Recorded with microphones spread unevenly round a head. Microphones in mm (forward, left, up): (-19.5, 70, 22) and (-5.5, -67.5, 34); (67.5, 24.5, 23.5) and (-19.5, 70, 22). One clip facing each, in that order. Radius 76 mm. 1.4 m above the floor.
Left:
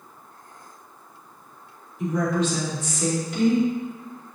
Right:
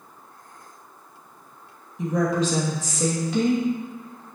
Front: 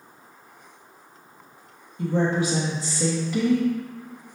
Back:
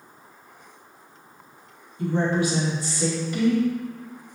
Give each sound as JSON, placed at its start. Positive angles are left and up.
{"t": 2.0, "sound": "a woman speaking", "azimuth_deg": -60, "distance_m": 2.0}